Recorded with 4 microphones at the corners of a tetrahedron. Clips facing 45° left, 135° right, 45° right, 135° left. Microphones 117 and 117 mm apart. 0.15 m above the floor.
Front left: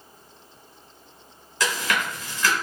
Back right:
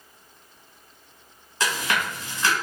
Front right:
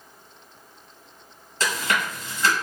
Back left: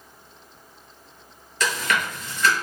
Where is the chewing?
90° right, 1.4 m.